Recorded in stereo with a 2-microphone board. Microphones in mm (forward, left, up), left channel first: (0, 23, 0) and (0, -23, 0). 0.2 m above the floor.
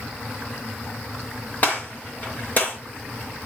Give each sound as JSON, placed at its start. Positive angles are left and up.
{"t": 1.6, "sound": "a gunshot", "side_deg": 40, "distance_m": 4.0}